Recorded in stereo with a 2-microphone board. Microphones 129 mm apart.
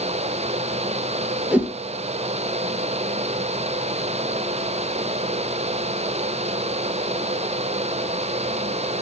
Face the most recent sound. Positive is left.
turn(degrees=-10)  # may be behind; listen again after turning